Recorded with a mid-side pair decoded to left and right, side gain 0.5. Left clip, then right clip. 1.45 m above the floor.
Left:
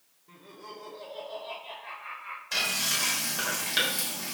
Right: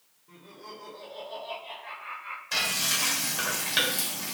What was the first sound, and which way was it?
Laughter, 15° left.